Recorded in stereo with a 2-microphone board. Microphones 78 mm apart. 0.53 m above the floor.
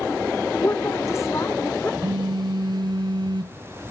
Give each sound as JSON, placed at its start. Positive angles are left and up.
{"t": 0.6, "sound": "a woman speaking", "side_deg": 40, "distance_m": 2.0}
{"t": 2.0, "sound": "a phone buzzing", "side_deg": -60, "distance_m": 0.6}